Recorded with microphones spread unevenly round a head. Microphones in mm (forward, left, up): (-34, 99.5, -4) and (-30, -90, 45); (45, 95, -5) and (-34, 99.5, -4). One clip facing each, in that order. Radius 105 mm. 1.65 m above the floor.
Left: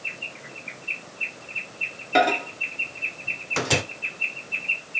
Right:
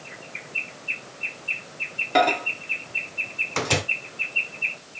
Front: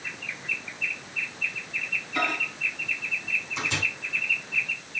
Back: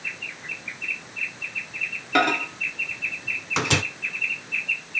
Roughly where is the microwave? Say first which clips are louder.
Even, back 8 dB; behind.